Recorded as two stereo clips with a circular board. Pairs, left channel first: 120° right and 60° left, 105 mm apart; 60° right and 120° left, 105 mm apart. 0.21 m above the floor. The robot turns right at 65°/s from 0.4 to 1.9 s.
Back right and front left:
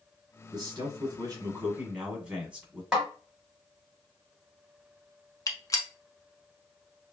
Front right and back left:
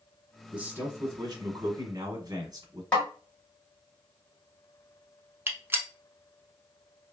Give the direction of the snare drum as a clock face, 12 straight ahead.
12 o'clock.